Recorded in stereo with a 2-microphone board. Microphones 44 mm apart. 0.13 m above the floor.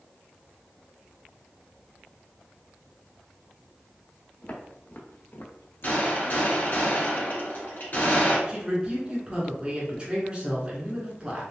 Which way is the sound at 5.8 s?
45° left (ahead or behind).